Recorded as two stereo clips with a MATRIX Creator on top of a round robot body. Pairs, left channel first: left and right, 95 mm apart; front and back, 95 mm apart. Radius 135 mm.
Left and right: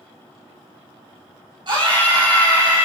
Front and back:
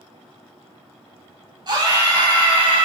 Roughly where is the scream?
Behind right.